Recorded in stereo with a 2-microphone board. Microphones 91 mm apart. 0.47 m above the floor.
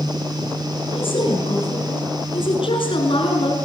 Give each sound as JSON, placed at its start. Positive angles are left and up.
{"t": 0.9, "sound": "a woman speaking", "side_deg": 80, "distance_m": 7.5}